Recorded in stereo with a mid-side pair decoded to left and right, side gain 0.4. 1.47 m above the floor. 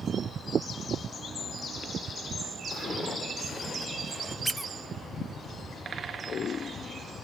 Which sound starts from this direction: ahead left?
Footsteps, at 2.7 s.